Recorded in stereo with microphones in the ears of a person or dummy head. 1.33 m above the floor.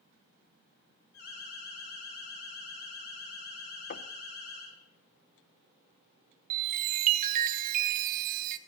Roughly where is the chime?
Right.